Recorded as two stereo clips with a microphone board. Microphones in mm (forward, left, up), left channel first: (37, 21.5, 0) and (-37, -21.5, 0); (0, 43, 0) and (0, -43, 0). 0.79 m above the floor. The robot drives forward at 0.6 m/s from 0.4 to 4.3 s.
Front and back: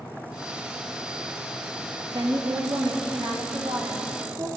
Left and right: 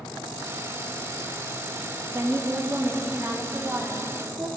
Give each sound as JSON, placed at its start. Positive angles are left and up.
{"t": 2.1, "sound": "a woman speaking", "azimuth_deg": -145, "distance_m": 1.5}